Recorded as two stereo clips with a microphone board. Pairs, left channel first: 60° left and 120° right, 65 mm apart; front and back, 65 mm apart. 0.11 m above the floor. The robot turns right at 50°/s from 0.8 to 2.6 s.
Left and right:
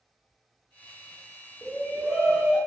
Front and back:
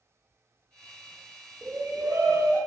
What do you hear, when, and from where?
1.6 s a shout: 125° left, 2.5 m; by 2.6 s 170° left, 2.5 m